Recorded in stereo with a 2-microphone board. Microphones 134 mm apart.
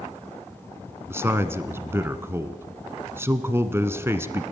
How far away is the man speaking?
About 1.0 m.